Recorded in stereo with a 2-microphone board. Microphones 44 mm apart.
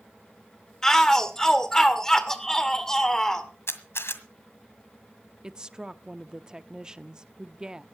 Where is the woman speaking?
15° right (ahead or behind), 0.6 m.